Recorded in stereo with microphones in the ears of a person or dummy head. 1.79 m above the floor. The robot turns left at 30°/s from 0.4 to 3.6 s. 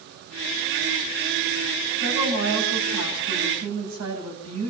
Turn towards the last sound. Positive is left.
turn(degrees=-90)